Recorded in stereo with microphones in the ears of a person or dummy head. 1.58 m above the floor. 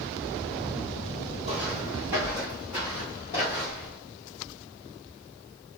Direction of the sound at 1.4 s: 25° right (ahead or behind).